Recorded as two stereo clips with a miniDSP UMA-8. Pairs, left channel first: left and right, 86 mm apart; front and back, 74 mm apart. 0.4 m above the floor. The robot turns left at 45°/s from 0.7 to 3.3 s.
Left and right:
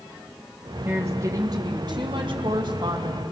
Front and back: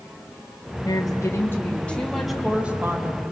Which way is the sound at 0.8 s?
25° right.